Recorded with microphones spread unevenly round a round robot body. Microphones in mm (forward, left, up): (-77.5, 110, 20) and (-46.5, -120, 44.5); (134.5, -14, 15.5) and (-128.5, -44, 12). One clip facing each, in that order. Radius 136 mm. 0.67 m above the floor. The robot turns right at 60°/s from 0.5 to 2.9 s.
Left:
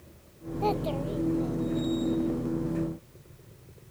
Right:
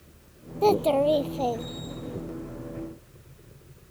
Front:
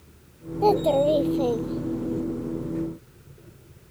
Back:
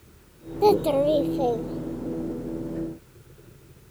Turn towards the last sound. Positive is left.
turn(degrees=20)